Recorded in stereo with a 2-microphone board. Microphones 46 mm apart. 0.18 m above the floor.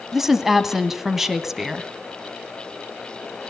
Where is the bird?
I don't hear a bird.